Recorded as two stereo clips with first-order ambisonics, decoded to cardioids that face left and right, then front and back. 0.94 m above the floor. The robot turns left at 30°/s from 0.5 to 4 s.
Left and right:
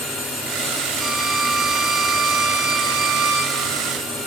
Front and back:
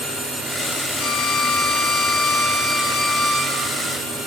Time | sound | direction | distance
1.0 | a violin | 10° right | 4 m